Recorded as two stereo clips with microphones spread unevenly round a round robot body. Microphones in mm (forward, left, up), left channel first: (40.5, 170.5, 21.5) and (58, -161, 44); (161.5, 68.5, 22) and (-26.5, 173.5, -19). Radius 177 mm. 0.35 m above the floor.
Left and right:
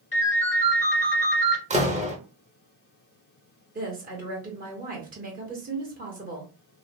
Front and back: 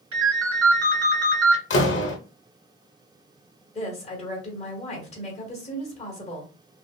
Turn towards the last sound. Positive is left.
turn(degrees=-70)